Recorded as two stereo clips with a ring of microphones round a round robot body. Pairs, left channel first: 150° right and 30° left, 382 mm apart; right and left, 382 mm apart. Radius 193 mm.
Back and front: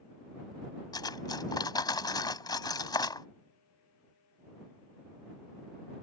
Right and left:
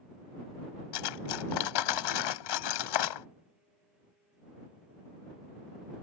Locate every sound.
0.9 s cutlery clinking: 70° right